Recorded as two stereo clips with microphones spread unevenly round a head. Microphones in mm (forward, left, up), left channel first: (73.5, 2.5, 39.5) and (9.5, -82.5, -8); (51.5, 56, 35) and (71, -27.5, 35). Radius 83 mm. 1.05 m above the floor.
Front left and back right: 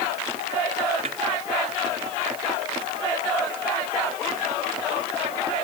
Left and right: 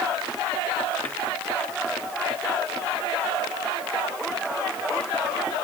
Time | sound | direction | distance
1.1 | a snare drum | straight behind | ?